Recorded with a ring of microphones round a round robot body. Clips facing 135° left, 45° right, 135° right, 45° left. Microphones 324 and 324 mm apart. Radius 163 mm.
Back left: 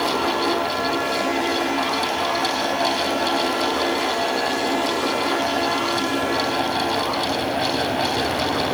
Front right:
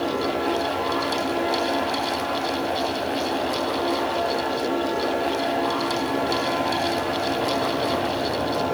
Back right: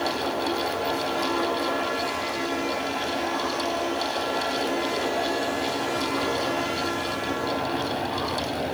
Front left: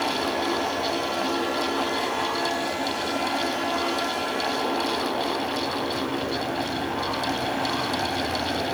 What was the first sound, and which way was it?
Only background noise.